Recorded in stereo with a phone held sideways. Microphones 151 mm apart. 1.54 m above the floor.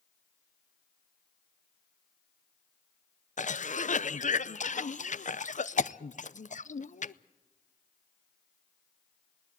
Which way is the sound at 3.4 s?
55° left (ahead or behind).